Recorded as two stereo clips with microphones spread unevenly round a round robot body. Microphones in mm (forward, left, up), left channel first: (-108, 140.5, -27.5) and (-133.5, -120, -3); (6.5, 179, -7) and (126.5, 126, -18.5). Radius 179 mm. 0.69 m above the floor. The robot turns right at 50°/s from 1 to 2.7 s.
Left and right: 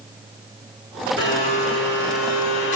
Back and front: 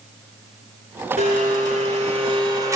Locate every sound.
1.2 s a blender: 35° right, 2 m; by 2.8 s 40° left, 2 m